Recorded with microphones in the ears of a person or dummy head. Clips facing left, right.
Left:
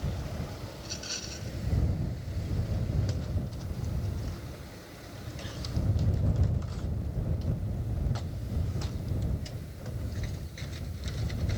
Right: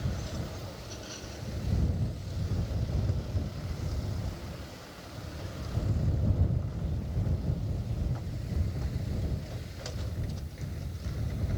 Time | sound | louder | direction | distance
0.8 | a rattle | even | 35° left (ahead or behind) | ?